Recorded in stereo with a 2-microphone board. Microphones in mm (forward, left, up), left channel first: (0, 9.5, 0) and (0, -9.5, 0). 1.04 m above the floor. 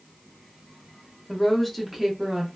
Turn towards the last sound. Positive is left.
turn(degrees=-30)  # may be behind; listen again after turning